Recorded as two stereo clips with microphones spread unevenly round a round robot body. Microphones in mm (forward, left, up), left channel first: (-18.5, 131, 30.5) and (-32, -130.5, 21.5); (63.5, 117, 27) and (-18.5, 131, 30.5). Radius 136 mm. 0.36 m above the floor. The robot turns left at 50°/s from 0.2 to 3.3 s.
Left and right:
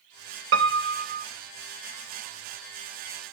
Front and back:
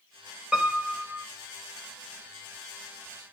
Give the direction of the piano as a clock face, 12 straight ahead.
4 o'clock.